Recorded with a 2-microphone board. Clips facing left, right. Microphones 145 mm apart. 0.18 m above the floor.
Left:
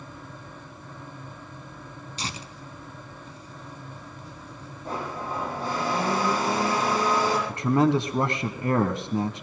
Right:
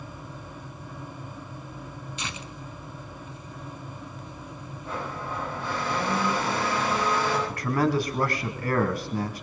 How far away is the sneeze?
I don't hear a sneeze.